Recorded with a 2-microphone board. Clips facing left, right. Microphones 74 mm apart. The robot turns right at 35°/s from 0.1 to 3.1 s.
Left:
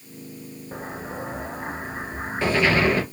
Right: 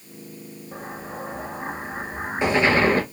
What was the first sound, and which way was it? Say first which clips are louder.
An explosion: left 1 dB; 140° left.